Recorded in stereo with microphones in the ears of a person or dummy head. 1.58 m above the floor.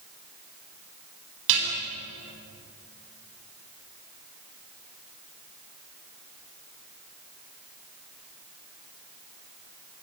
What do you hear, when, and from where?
1.5 s dishes clattering: 65° right (ahead or behind), 8 m